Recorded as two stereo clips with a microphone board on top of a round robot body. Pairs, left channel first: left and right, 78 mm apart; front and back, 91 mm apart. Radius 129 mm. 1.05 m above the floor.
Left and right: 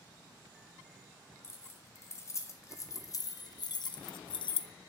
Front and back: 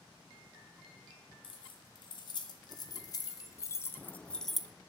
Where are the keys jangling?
35° left, 2.5 m; by 4.7 s 95° left, 0.9 m.